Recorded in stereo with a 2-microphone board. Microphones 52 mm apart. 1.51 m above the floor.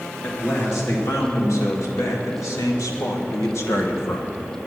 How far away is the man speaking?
About 2.5 m.